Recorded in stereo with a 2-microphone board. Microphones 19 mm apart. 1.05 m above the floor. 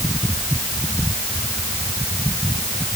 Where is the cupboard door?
I don't hear a cupboard door.